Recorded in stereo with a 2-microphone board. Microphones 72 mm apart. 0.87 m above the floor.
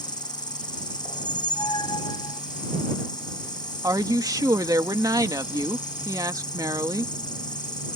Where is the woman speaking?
60° right (ahead or behind).